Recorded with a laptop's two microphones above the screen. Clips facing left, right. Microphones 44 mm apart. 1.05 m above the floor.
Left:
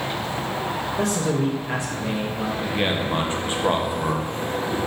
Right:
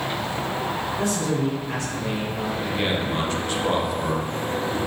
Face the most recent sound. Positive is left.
turn(degrees=25)  # may be behind; listen again after turning